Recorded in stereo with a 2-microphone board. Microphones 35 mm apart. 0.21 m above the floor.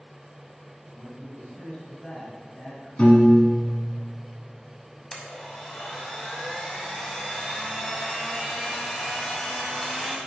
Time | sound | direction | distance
0.8 | a man speaking | 30° left (ahead or behind) | 2.0 m
3.0 | a piano | 40° left (ahead or behind) | 0.8 m
5.1 | a blender | 10° left (ahead or behind) | 0.6 m